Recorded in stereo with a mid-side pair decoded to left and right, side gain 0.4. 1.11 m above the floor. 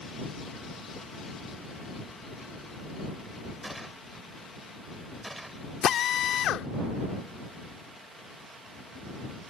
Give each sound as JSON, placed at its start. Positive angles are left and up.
{"t": 3.6, "sound": "a gunshot", "azimuth_deg": -15}
{"t": 5.8, "sound": "a drill", "azimuth_deg": 70}